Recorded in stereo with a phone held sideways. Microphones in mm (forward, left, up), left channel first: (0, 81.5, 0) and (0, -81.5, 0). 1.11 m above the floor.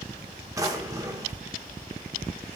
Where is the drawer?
20° right (ahead or behind), 1.2 m.